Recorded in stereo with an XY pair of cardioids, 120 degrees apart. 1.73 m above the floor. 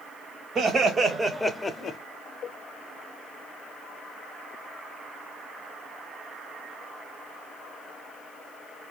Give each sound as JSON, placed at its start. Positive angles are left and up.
{"t": 0.6, "sound": "laughter", "azimuth_deg": -40, "distance_m": 1.2}